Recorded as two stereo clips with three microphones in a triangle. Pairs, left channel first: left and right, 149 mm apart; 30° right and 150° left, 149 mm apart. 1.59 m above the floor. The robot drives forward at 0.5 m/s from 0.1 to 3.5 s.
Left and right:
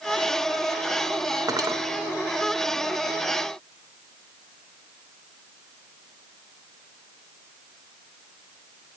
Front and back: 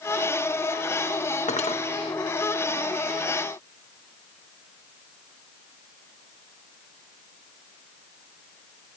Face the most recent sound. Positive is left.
turn(degrees=-115)